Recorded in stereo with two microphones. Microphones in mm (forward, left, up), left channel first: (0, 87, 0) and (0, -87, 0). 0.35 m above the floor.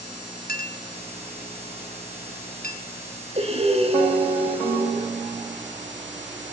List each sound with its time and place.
0.5 s a clink: 65° left (ahead or behind), 3 m
3.4 s breathing: 35° right (ahead or behind), 4.5 m